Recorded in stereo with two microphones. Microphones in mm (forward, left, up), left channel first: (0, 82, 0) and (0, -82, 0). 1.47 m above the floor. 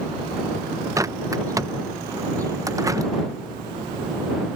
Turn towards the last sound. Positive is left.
turn(degrees=-20)  # may be behind; listen again after turning